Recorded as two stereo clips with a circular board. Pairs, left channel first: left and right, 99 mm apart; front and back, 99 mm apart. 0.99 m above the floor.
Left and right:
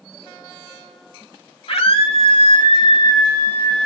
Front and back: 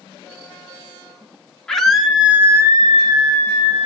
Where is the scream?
85° left, 2.5 m; by 3.9 s 170° left, 2.5 m.